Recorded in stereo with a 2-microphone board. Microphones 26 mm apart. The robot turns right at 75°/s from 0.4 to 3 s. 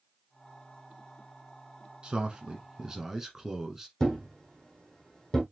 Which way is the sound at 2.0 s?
110° right.